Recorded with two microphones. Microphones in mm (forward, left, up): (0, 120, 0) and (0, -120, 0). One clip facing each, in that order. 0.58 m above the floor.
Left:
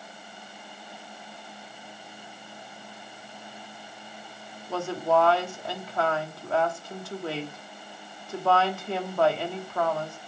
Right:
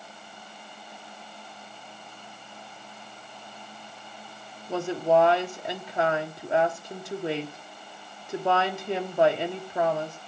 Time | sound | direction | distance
4.7 | a woman speaking | 20° right (ahead or behind) | 1.1 m